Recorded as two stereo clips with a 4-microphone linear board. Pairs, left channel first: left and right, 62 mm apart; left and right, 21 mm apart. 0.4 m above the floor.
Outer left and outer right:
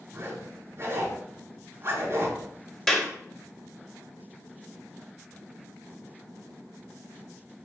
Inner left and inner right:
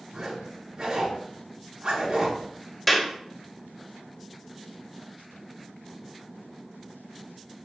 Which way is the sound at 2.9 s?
5° left (ahead or behind).